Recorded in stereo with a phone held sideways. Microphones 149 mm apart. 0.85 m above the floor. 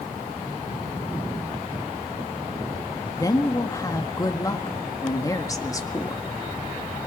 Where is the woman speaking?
25° left (ahead or behind), 1.5 m.